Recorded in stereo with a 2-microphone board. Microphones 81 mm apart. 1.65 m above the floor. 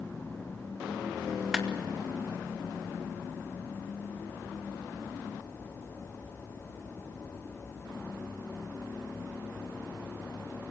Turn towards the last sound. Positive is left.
turn(degrees=-5)  # may be behind; listen again after turning